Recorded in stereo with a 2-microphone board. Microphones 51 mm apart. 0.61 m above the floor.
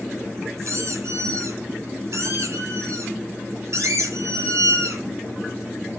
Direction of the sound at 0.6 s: 60° right (ahead or behind).